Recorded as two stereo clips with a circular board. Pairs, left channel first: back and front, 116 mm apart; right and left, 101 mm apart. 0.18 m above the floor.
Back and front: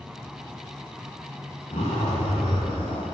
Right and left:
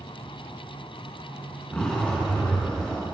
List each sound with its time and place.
1.7 s a zipper: 165° right, 5 m